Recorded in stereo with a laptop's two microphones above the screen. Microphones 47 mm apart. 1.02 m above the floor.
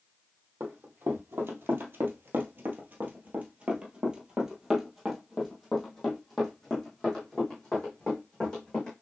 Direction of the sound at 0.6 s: 45° right (ahead or behind).